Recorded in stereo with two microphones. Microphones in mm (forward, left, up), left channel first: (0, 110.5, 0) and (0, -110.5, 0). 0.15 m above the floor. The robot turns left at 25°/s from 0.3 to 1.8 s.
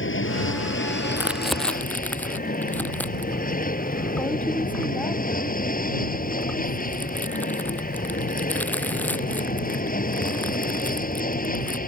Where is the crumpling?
10° right (ahead or behind); by 11.8 s 10° left (ahead or behind).